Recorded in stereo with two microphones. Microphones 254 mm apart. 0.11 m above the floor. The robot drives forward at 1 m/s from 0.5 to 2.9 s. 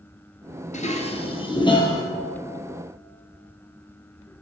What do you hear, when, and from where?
0.7 s dishes clattering: 30° left (ahead or behind), 1.2 m; by 2.0 s 15° left (ahead or behind), 2 m